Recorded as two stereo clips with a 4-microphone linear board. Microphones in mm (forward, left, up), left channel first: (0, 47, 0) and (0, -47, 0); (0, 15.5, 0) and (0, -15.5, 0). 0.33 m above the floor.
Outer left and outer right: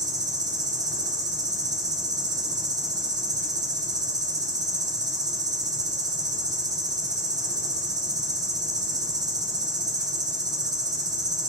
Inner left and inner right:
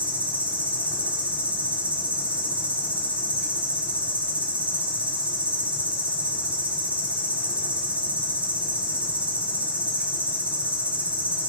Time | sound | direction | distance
0.0 | an insect | 45° right (ahead or behind) | 0.8 m